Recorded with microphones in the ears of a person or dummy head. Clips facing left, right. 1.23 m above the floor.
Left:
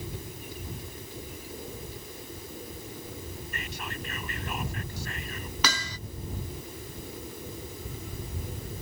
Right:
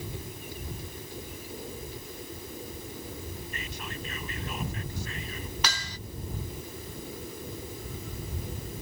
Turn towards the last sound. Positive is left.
turn(degrees=70)  # may be behind; listen again after turning